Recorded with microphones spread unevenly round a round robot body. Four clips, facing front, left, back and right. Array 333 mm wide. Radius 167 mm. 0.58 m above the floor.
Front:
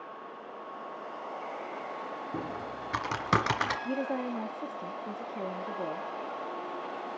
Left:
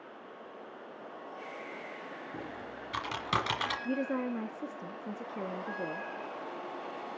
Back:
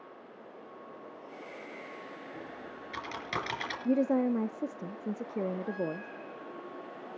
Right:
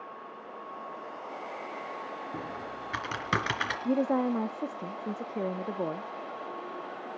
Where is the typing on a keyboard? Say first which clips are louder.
Right 4 dB, front 7 dB; 20° right, 3 m.